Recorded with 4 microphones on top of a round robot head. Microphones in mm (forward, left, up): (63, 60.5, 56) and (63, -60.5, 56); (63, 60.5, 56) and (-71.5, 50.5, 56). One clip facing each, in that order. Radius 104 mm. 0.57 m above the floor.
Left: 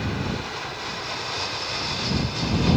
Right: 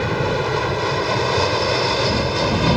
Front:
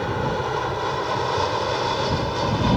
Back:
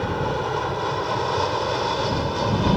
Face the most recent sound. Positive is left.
turn(degrees=-85)